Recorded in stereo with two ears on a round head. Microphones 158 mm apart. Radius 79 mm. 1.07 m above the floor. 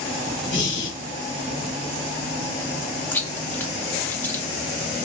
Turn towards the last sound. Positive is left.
turn(degrees=10)  # may be behind; listen again after turning